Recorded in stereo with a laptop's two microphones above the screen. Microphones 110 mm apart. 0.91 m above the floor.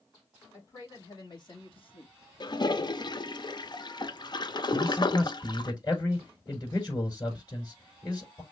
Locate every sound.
0.5 s a man speaking: 30° left (ahead or behind), 2 m; by 3.2 s 35° left (ahead or behind), 1.1 m
2.4 s a toilet flushing: 40° left (ahead or behind), 0.5 m
4.7 s a man speaking: 40° left (ahead or behind), 4 m